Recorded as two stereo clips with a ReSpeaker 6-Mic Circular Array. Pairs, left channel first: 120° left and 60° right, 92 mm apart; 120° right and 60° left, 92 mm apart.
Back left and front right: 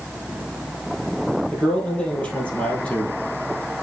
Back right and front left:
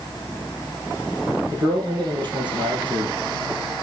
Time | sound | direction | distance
1.5 | a man speaking | 45° left | 2.5 m